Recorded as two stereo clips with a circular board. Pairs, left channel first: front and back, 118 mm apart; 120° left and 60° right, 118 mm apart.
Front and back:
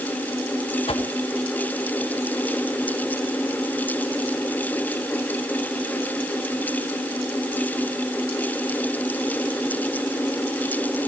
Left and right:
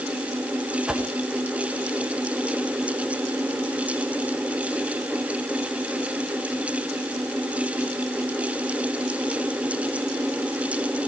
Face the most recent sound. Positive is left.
turn(degrees=25)